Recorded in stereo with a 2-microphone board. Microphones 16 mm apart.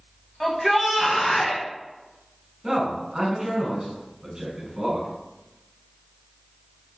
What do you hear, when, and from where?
0.4 s a shout: 10° left (ahead or behind), 1.0 m
2.6 s a man speaking: 35° right (ahead or behind), 1.6 m